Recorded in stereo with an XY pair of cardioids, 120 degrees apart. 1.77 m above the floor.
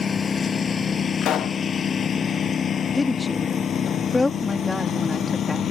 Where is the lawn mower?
30° left; by 5.7 s 45° left.